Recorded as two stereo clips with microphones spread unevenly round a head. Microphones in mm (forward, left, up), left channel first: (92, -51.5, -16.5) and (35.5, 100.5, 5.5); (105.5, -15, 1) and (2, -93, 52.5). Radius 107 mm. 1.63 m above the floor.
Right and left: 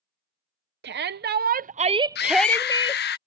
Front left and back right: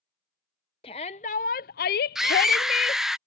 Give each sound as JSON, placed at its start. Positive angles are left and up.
{"t": 0.8, "sound": "a shout", "azimuth_deg": 105}
{"t": 2.1, "sound": "a scream", "azimuth_deg": -55}